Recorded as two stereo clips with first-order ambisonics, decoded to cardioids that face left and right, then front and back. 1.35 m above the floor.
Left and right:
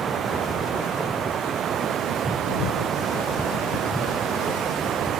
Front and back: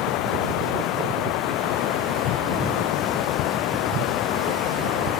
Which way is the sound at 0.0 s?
30° right.